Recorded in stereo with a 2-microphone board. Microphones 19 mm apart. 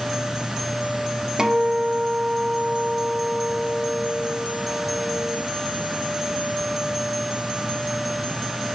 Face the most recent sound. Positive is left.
turn(degrees=-35)  # may be behind; listen again after turning